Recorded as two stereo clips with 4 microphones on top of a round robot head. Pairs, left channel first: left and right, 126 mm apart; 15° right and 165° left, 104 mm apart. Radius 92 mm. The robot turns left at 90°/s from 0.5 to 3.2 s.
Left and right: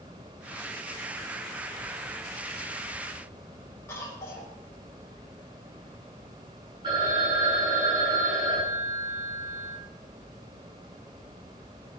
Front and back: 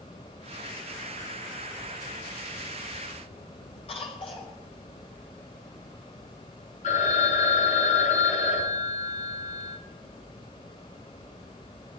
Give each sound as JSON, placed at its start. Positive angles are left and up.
{"t": 3.9, "sound": "a cough", "azimuth_deg": 15, "distance_m": 6.5}
{"t": 6.8, "sound": "a phone ringing", "azimuth_deg": -30, "distance_m": 10.0}